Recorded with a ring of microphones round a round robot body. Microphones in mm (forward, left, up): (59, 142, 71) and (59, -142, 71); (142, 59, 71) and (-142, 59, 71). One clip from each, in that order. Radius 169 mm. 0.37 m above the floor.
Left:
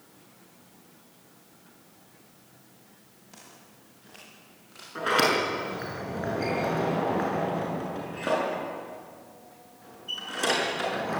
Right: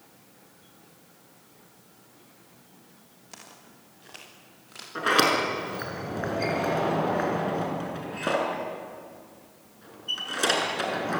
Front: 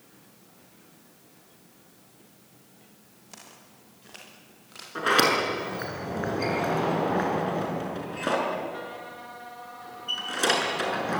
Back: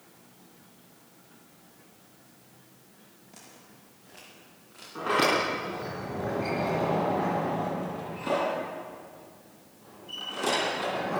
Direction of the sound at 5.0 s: 30° right.